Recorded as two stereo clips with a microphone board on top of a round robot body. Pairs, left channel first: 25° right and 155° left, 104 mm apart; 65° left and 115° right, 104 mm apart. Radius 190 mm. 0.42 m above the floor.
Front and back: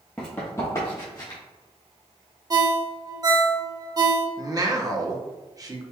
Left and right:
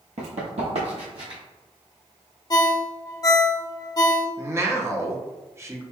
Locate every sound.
0.2 s running footsteps: 105° right, 0.7 m; by 1.4 s 75° right, 1.6 m
2.5 s a ringtone: 115° left, 0.7 m
4.4 s a man speaking: 165° right, 1.0 m